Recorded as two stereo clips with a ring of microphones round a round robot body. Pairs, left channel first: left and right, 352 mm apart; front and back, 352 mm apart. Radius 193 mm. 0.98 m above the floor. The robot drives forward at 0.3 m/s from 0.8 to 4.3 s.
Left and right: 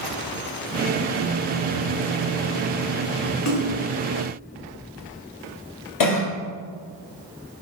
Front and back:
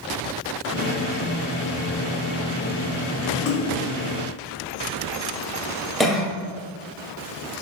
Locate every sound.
3.5 s a splash: 50° left, 2 m
6.0 s a cough: 90° left, 1.3 m